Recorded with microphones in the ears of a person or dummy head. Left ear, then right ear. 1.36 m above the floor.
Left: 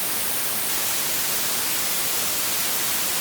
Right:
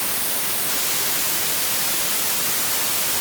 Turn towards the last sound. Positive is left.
No sound to turn to.